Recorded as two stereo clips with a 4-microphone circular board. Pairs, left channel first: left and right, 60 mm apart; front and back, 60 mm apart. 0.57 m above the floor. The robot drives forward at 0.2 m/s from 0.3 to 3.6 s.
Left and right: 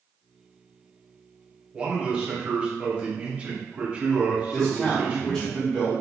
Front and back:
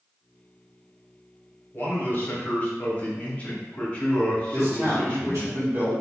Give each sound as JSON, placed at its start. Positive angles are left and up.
{"t": 1.7, "sound": "a man speaking", "azimuth_deg": -25, "distance_m": 1.2}
{"t": 4.5, "sound": "a man speaking", "azimuth_deg": 160, "distance_m": 1.5}